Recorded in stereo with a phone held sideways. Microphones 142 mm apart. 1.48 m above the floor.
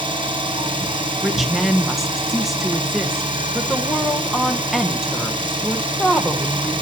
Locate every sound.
0.0 s an engine running: 35° right (ahead or behind), 3.5 m
1.2 s a woman speaking: centre (ahead or behind), 1.3 m